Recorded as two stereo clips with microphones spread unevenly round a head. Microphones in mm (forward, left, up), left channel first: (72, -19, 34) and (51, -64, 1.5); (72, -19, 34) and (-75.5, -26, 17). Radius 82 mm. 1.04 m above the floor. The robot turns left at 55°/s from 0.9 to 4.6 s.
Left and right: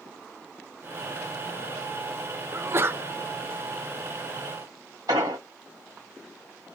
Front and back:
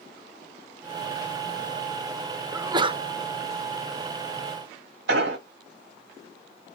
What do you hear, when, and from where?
2.5 s a sneeze: 105° right, 0.6 m; by 3.0 s 130° right, 0.6 m
5.1 s an explosion: 165° right, 1.9 m